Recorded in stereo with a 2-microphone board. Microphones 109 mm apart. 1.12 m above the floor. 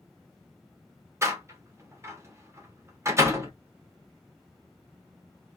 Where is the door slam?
25° right (ahead or behind), 0.7 m.